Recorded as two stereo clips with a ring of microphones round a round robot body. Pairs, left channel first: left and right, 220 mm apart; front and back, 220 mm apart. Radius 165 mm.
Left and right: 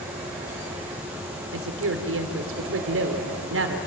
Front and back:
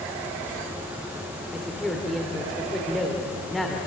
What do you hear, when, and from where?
1.5 s a woman speaking: 90° right, 2.5 m